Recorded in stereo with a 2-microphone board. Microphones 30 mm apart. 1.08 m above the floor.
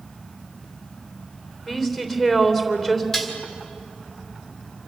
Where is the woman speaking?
15° left (ahead or behind), 3.5 m.